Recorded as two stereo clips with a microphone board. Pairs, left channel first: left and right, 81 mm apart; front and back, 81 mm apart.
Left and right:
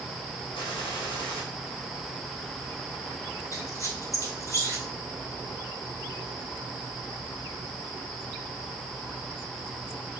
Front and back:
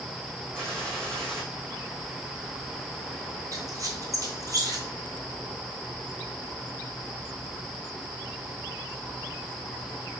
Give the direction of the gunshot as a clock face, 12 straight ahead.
9 o'clock.